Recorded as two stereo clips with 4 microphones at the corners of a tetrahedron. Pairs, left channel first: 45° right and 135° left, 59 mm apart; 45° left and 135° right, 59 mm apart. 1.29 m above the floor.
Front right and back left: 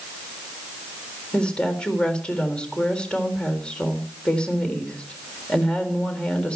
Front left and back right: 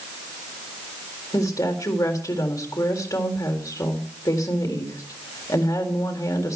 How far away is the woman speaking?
About 3.5 m.